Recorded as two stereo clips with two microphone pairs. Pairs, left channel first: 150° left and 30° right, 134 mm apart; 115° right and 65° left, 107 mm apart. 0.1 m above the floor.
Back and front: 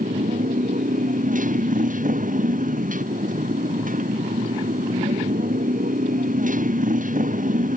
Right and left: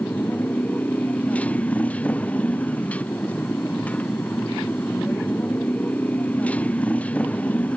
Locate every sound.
0.0 s a motorcycle: 35° right